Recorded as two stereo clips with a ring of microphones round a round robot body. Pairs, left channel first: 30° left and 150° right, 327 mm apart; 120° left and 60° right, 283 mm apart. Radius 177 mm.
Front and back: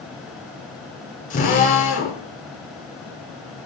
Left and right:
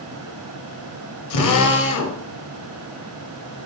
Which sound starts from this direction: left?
A drill, at 1.3 s.